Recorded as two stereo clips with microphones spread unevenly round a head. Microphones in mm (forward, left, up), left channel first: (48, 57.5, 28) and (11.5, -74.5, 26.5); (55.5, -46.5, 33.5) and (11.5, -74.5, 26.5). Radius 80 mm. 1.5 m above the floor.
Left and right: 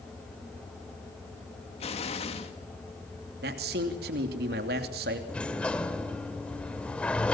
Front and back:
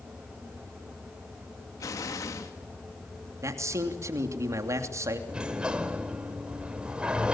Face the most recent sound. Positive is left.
turn(degrees=140)